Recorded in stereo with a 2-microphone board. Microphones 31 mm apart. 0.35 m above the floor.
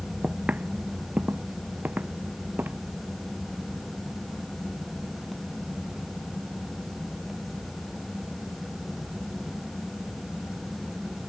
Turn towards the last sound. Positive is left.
turn(degrees=-80)